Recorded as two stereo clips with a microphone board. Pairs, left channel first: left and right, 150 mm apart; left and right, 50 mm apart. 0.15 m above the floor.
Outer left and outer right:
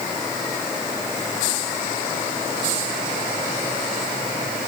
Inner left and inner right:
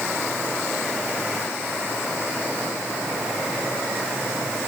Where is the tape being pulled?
No tape being pulled in this recording.